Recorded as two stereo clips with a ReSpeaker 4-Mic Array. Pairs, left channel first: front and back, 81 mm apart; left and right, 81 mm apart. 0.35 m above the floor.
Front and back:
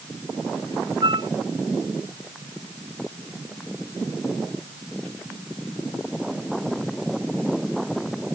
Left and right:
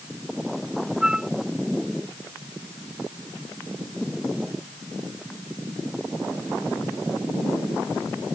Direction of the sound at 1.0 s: 170° right.